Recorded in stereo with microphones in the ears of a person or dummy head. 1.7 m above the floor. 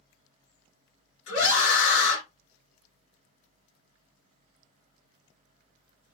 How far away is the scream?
About 2 m.